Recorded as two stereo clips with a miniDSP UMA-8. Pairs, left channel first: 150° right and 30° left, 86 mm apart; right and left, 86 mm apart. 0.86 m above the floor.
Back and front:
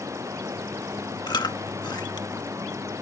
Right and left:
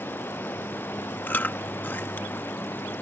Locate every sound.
0.0 s running water: 25° right
1.3 s chewing: 155° right